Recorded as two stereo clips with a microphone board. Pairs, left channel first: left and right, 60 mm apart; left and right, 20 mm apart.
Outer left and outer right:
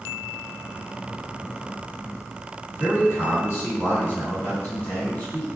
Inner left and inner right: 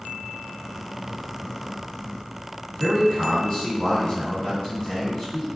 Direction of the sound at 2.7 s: 50° left (ahead or behind).